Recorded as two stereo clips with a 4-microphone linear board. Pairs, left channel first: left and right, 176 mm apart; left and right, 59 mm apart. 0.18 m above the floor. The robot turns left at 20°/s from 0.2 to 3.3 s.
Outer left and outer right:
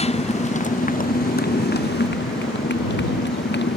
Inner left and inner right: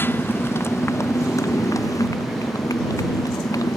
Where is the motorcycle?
145° left; by 3.8 s 80° left.